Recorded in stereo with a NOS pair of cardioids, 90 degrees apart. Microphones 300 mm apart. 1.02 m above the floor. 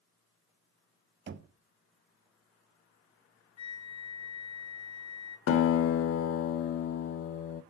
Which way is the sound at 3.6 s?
60° left.